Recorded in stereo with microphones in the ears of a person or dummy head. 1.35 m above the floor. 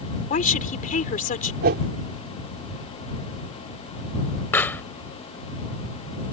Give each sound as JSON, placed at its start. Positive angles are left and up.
{"t": 0.3, "sound": "a woman speaking", "side_deg": 40}
{"t": 1.6, "sound": "a whoosh", "side_deg": -50}
{"t": 4.5, "sound": "a pop", "side_deg": 10}